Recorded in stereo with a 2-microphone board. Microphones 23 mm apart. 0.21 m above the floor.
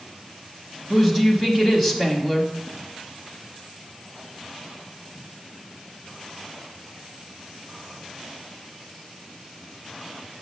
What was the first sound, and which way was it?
A woman speaking, 10° left (ahead or behind).